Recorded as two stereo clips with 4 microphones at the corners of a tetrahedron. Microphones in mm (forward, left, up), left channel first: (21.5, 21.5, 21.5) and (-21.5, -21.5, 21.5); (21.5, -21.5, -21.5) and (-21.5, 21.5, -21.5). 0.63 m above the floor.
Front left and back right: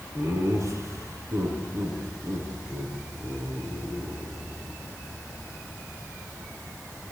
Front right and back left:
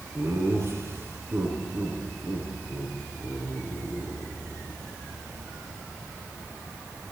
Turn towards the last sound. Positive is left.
turn(degrees=-150)